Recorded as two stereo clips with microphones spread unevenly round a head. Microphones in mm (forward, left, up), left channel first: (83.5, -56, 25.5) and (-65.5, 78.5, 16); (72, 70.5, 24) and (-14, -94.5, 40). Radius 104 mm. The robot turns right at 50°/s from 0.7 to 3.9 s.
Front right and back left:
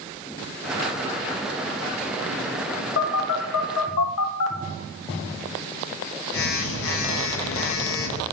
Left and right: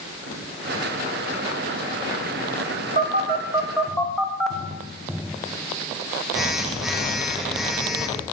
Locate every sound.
3.0 s a phone buzzing: 75° right, 0.9 m; by 8.2 s 30° right, 0.9 m